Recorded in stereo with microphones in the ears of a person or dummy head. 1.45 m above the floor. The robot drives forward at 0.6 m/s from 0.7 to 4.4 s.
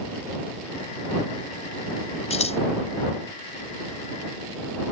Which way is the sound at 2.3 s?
45° left (ahead or behind).